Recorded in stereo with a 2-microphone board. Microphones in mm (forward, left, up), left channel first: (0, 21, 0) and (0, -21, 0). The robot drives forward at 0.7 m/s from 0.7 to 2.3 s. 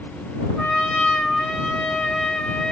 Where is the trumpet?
10° left (ahead or behind), 2 m; by 2.7 s 15° left (ahead or behind), 1.3 m.